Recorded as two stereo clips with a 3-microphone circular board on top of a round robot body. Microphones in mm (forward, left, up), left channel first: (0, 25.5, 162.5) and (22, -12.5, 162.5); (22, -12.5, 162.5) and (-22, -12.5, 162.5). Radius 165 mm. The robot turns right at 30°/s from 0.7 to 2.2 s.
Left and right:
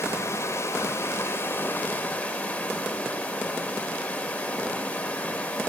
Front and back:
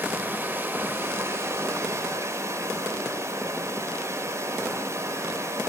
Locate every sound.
0.0 s running water: 130° left, 1.2 m; by 5.7 s 175° left, 1.2 m